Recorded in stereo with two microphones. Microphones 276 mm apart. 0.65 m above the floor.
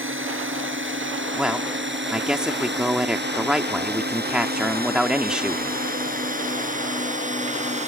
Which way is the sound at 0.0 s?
45° right (ahead or behind).